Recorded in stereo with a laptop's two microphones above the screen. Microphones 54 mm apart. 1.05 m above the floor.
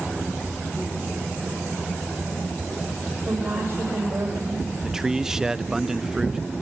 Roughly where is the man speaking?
Centre.